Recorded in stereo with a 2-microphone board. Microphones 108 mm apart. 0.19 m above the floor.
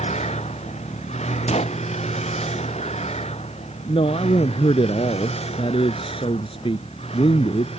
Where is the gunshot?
80° left.